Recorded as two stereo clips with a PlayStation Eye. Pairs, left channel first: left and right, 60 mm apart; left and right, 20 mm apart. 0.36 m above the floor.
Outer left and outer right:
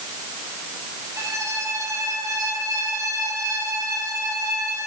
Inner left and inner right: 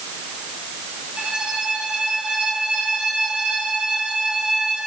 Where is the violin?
80° right, 6 m.